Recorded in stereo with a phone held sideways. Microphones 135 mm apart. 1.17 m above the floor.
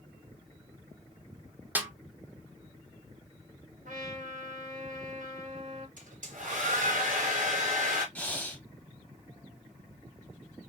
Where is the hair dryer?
75° right (ahead or behind), 2.5 m.